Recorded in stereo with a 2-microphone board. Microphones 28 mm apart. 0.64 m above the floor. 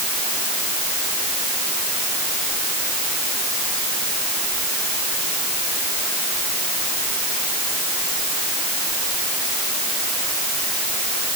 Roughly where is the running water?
I don't hear running water.